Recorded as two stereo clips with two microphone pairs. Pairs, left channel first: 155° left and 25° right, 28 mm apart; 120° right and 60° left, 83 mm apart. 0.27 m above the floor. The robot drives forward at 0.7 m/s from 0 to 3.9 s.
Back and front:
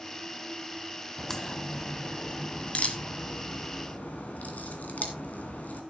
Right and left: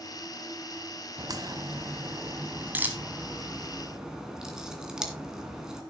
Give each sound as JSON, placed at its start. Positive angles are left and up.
{"t": 1.2, "sound": "a crack", "azimuth_deg": 80, "distance_m": 1.6}